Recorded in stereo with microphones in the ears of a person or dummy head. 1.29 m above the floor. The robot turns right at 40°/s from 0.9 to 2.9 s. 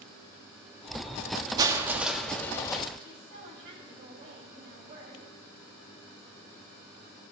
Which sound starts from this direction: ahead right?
Crushing, at 1.6 s.